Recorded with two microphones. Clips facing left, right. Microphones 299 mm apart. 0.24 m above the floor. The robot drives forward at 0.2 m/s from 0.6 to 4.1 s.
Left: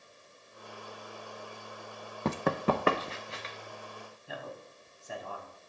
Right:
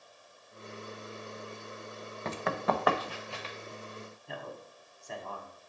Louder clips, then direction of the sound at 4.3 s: Left 2 dB; 5° left (ahead or behind).